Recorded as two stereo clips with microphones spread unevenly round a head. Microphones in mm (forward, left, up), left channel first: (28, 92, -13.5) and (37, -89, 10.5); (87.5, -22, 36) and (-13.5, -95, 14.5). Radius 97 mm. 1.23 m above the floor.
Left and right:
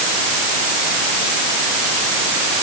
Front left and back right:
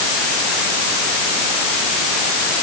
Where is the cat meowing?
I don't hear a cat meowing.